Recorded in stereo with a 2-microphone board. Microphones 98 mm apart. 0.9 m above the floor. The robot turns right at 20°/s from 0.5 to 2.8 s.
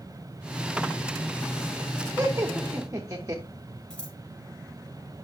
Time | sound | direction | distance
2.2 | laughter | 25° right (ahead or behind) | 1.2 m
3.9 | scissors | 10° left (ahead or behind) | 4.5 m